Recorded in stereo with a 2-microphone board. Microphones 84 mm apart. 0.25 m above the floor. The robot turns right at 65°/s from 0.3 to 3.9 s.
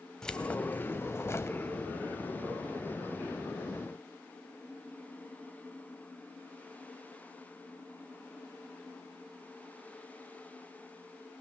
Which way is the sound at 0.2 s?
20° left.